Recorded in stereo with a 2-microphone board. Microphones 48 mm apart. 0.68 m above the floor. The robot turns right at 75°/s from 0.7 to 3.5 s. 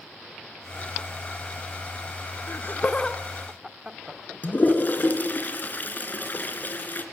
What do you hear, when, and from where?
2.5 s laughter: 55° left (ahead or behind), 1.7 m; by 4.8 s 10° right (ahead or behind), 1.7 m
4.4 s a toilet flushing: 40° left (ahead or behind), 3 m